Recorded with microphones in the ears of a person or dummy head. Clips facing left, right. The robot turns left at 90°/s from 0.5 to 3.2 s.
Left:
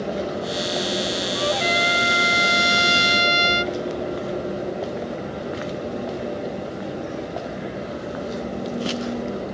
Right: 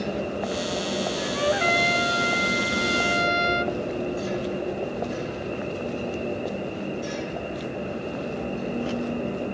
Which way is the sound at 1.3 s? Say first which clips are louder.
Right 1 dB; 145° right.